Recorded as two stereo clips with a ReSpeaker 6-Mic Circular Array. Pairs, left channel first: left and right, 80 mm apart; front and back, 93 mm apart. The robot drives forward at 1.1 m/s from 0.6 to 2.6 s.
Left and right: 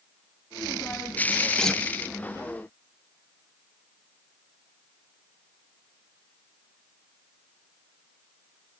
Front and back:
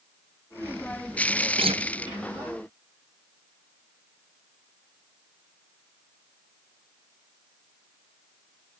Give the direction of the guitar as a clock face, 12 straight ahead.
6 o'clock.